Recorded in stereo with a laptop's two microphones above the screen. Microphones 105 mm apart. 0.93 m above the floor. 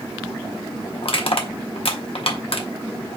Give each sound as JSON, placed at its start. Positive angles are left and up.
{"t": 1.0, "sound": "crushing", "side_deg": 60, "distance_m": 0.7}